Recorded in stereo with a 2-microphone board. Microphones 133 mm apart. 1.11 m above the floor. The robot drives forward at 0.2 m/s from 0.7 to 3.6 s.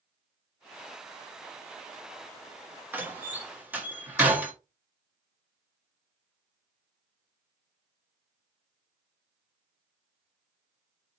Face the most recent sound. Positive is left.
turn(degrees=-10)  # may be behind; listen again after turning